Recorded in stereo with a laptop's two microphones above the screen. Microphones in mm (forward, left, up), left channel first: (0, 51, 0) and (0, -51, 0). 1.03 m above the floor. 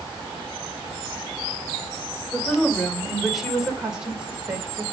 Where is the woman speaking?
5° left (ahead or behind), 4 m; by 4.8 s 20° right (ahead or behind), 4 m.